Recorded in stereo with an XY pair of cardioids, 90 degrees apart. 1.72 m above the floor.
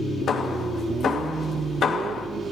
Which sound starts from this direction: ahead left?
Hammering, at 0.3 s.